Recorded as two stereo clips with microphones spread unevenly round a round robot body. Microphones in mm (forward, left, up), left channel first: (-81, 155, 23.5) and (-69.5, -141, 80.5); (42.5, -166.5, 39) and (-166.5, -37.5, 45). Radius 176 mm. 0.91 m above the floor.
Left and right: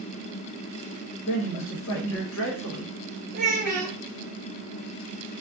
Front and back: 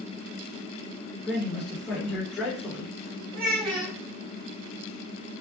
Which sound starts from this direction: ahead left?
A man speaking, at 1.3 s.